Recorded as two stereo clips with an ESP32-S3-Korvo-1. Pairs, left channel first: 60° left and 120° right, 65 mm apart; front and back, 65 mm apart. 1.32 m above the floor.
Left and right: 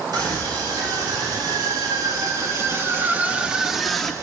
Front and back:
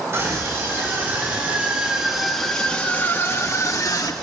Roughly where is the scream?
Behind right.